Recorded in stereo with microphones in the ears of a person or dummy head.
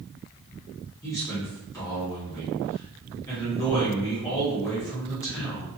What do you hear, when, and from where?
1.0 s a man speaking: 15° left (ahead or behind), 0.8 m